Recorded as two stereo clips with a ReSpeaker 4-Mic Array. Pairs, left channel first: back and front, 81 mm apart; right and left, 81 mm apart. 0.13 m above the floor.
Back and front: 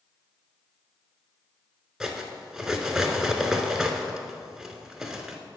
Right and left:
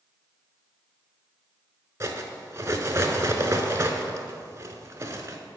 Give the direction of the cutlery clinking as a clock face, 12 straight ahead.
9 o'clock.